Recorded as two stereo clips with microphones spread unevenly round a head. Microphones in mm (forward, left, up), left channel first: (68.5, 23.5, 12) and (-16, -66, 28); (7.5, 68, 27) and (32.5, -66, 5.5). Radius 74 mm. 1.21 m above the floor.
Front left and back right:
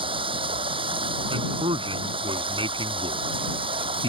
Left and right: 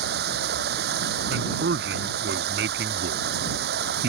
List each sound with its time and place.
0.0 s running water: 85° right
1.3 s a man speaking: 85° right